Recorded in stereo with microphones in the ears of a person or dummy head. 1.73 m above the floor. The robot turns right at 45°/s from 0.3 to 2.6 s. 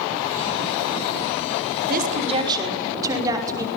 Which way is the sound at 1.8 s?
50° right.